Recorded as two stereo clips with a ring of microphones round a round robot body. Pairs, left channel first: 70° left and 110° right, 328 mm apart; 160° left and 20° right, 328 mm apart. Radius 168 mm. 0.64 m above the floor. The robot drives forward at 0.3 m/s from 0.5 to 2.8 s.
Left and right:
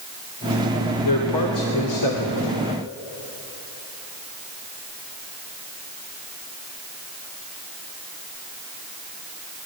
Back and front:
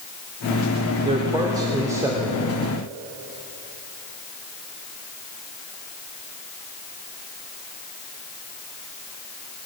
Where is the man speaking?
50° left, 2.5 m; by 2.6 s 60° left, 2.5 m.